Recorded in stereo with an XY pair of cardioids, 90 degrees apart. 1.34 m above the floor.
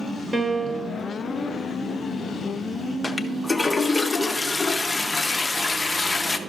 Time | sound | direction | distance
0.3 | a piano | 25° right | 1.2 m
3.0 | a toilet flushing | 20° left | 0.7 m